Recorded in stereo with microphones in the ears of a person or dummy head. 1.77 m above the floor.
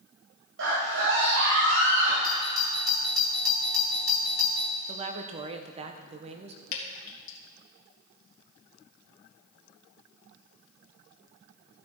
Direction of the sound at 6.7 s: 55° left (ahead or behind).